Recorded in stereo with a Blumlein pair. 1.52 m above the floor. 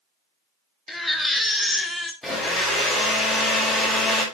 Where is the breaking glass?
I don't hear breaking glass.